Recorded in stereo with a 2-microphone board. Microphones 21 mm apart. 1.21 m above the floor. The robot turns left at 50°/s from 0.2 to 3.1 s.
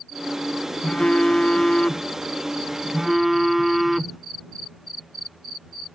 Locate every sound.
0.8 s a phone buzzing: 100° left; by 4.2 s 15° right